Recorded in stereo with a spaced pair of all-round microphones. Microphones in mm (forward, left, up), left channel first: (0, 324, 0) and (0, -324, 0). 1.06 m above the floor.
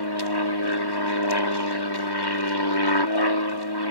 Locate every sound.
0.0 s an aircraft: 35° left (ahead or behind)